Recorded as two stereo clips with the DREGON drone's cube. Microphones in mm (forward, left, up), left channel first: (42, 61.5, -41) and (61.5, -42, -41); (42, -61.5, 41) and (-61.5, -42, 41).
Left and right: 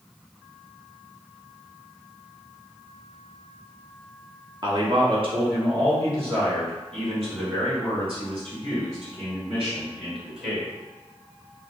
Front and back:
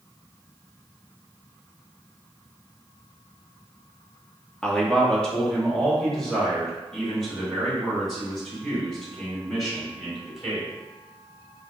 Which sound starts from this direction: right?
A man speaking, at 4.6 s.